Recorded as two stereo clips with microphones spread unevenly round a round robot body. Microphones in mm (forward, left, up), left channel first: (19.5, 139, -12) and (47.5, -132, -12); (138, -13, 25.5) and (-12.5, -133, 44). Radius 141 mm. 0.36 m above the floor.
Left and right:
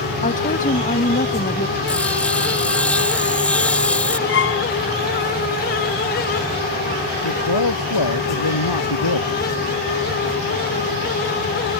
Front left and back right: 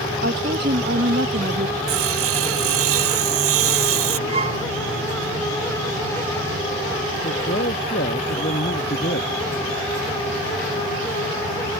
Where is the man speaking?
100° left.